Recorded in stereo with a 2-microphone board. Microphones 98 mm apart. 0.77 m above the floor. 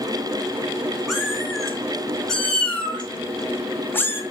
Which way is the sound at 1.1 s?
Centre (ahead or behind).